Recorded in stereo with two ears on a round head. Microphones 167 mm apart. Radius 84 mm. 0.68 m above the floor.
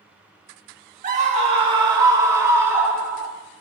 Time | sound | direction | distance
1.0 | a scream | 45° right (ahead or behind) | 1.6 m